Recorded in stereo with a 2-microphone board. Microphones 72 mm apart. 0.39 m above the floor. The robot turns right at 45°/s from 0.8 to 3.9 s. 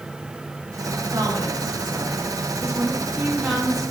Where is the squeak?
No squeak in this recording.